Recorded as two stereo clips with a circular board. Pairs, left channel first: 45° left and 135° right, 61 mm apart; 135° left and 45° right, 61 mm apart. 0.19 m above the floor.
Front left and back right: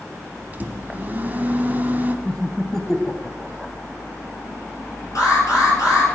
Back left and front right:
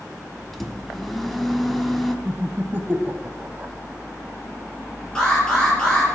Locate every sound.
0.5 s a microwave: 145° right, 1.1 m
2.2 s laughter: 35° right, 1.1 m
5.2 s an alarm: 60° left, 5 m